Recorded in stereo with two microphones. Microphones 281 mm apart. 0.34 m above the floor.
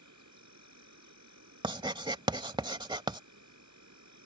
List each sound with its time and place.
0.0 s an insect: 85° right
1.6 s writing: 15° right (ahead or behind)